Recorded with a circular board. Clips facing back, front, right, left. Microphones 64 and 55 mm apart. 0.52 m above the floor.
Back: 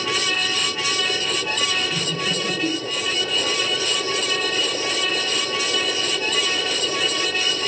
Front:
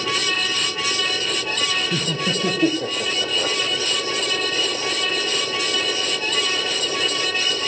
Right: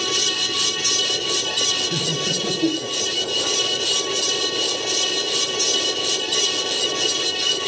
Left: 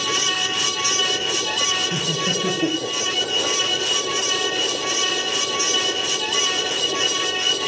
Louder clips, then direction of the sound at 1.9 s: Front 1 dB, left 1 dB; 5° left.